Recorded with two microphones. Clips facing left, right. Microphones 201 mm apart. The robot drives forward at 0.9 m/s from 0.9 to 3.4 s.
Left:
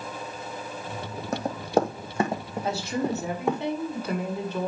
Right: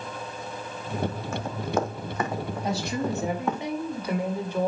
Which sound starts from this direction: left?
Running footsteps, at 1.3 s.